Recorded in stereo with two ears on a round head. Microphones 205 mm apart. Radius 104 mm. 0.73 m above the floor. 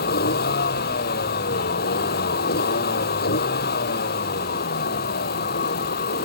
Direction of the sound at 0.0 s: 45° left (ahead or behind).